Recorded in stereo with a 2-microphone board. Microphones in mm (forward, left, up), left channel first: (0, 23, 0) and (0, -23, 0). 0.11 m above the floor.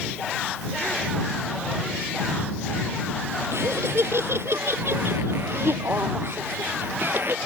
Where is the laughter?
65° right (ahead or behind); by 7.4 s 50° right (ahead or behind).